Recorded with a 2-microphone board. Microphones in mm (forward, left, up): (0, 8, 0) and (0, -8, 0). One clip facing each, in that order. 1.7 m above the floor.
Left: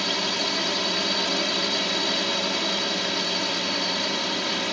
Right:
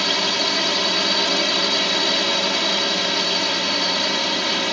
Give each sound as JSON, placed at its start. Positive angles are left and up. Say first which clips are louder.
{"t": 0.0, "sound": "a drone", "louder": "right 5 dB", "side_deg": -25}